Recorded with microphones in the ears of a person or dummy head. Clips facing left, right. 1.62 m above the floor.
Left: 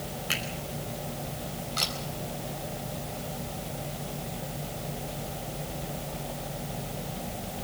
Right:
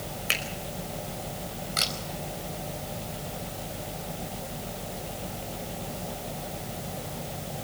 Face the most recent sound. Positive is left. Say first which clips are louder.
# right 2 dB
turn(degrees=-30)  # may be behind; listen again after turning